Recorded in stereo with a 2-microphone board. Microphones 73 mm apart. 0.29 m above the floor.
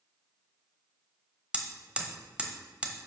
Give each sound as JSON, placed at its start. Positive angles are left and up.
{"t": 1.5, "sound": "hammering", "side_deg": -15, "distance_m": 1.2}